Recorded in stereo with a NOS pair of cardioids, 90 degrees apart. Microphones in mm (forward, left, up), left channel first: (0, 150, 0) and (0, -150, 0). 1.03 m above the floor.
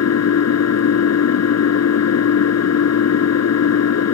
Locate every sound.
0.0 s an engine running: 55° left